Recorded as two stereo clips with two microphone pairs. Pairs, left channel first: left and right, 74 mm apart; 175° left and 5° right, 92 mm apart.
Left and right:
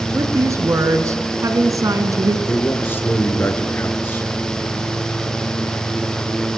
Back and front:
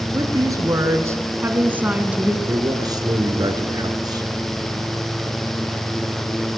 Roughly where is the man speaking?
Ahead left.